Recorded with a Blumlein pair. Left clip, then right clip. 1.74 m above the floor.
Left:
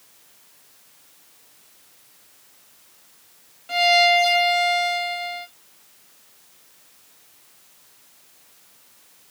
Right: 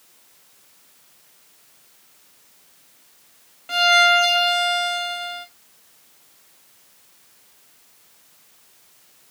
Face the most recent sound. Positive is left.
turn(degrees=-20)